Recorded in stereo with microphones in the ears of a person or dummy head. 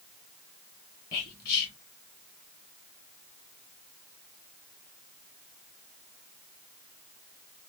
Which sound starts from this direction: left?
Whispering, at 1.1 s.